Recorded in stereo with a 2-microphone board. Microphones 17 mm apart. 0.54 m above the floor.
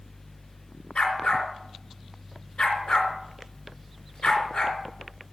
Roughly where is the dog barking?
Left.